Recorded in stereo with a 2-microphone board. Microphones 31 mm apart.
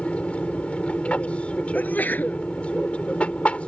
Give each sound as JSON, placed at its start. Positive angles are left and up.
{"t": 0.0, "sound": "an aircraft", "side_deg": 45}
{"t": 1.7, "sound": "a sneeze", "side_deg": 80}